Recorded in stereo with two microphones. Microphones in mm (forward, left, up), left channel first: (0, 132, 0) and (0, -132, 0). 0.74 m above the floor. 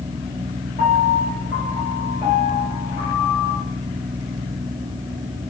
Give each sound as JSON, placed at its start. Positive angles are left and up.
{"t": 0.8, "sound": "a piano", "side_deg": 35, "distance_m": 3.0}